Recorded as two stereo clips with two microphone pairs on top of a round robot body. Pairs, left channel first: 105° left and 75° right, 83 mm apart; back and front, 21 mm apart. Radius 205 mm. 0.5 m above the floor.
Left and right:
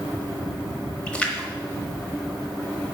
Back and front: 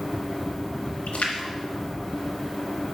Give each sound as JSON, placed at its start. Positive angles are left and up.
{"t": 1.1, "sound": "a splash", "azimuth_deg": -175, "distance_m": 0.9}